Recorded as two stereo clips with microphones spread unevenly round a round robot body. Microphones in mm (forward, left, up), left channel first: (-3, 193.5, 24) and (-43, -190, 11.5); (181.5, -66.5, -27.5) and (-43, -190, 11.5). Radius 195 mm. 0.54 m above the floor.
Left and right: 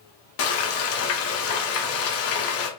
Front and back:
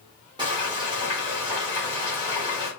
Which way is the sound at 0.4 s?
125° left.